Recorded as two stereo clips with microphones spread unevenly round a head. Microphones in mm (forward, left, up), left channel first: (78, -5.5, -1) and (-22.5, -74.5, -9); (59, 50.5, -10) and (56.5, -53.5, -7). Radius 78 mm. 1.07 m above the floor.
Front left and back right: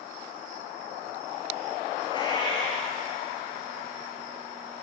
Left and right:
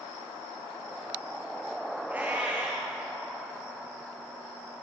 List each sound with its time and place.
2.1 s a cat meowing: 15° right, 8 m